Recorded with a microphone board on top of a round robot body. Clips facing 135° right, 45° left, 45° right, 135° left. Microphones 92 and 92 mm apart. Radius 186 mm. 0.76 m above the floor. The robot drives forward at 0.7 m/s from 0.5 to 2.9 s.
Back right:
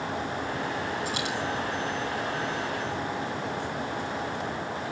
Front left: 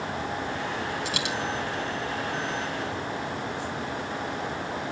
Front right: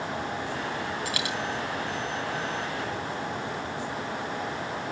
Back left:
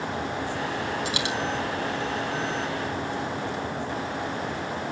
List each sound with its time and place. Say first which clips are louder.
1.1 s a dropped coin: even, back left 3 dB; 65° left, 3 m; by 1.4 s 70° left, 3 m